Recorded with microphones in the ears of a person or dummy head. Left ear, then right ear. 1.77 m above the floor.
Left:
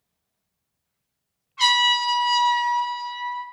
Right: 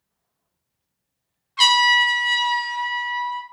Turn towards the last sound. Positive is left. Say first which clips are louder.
# right 4 dB
turn(degrees=-60)  # may be behind; listen again after turning